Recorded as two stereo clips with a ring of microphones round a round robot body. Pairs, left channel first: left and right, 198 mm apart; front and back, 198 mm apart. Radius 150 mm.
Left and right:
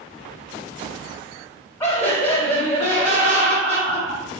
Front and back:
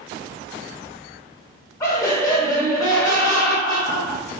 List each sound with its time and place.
1.8 s laughter: 40° left, 0.8 m